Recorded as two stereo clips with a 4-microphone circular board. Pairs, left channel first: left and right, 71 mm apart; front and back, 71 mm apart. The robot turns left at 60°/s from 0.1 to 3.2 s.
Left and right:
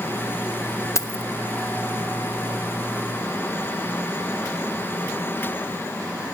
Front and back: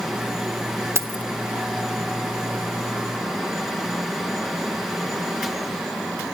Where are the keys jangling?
135° left, 1.1 m; by 1.2 s 115° left, 1.1 m.